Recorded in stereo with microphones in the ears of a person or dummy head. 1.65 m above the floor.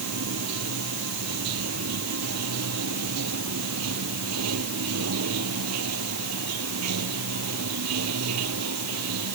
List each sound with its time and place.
0.0 s running water: 80° right